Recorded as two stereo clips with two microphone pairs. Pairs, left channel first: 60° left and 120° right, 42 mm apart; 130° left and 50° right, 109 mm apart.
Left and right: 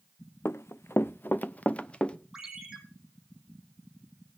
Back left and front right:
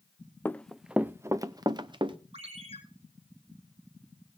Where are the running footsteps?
60° left, 0.6 m; by 2.2 s 10° right, 1.1 m.